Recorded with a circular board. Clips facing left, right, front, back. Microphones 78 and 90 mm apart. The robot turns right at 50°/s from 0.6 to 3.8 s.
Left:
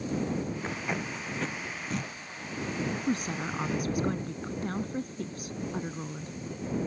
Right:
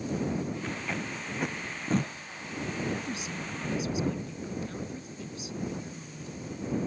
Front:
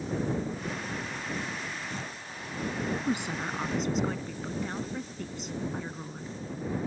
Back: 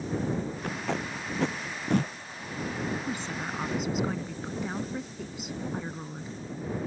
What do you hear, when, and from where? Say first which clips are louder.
0.6 s tape being pulled: left 1 dB, back 3 dB; 150° left; by 2.1 s 135° right
3.1 s a woman speaking: left 6 dB, front 3 dB; 60° left; by 6.4 s 100° left